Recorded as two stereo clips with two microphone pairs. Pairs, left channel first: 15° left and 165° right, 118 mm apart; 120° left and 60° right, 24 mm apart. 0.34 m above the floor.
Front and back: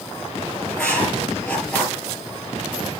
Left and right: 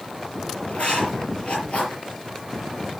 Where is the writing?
95° left, 5 m.